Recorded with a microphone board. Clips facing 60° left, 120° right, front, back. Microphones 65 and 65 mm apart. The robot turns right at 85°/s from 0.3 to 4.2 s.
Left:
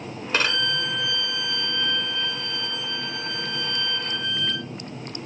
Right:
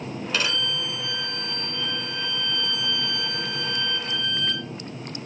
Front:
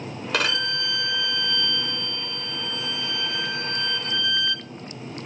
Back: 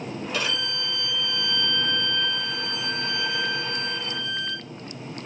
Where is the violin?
10° left, 0.8 m; by 4.7 s 20° right, 0.8 m.